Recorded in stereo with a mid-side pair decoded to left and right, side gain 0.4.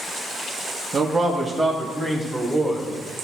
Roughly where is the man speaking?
Ahead right.